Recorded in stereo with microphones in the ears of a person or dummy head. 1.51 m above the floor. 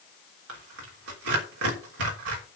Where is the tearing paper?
85° right, 3.5 m.